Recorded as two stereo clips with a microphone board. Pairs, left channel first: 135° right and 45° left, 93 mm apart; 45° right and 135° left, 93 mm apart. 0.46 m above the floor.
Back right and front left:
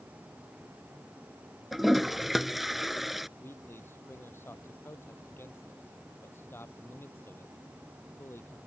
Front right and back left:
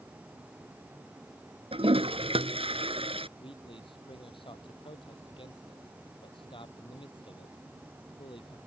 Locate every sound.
1.7 s a toilet flushing: 130° left
3.4 s a man speaking: 70° right